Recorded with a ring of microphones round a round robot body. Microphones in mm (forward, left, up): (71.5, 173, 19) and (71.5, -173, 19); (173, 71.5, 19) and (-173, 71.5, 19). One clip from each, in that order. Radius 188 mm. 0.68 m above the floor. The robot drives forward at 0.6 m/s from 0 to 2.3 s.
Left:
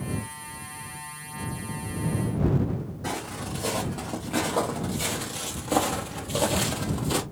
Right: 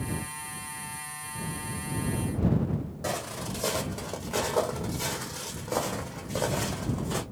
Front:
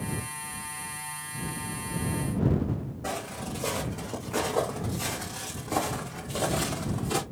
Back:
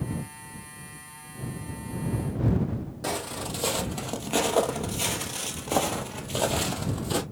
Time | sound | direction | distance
3.0 | footsteps | 165° right | 1.7 m